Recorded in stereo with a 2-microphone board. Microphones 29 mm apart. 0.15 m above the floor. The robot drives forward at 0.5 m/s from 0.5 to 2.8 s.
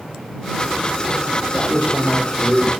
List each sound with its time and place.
1.5 s a man speaking: 70° left (ahead or behind), 5.5 m